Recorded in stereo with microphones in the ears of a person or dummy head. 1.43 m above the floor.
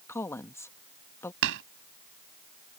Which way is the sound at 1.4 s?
65° right (ahead or behind).